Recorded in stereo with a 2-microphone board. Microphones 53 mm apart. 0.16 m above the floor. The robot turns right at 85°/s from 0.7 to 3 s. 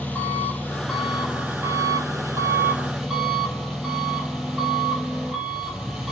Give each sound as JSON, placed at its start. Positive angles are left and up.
{"t": 0.0, "sound": "an engine running", "azimuth_deg": 155, "distance_m": 4.0}